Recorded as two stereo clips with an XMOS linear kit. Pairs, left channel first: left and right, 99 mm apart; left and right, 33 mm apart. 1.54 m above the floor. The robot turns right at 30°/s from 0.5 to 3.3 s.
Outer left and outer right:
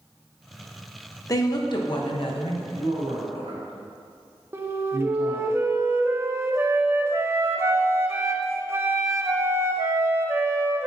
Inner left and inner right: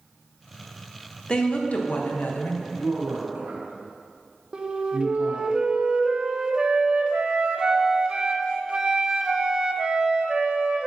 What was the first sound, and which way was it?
A woman speaking, 35° left.